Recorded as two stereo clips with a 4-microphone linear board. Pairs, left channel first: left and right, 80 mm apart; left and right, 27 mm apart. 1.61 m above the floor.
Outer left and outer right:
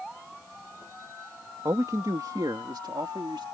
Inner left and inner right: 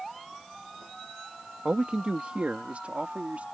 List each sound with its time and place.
1.6 s a man speaking: 45° right (ahead or behind); by 3.4 s 75° right (ahead or behind)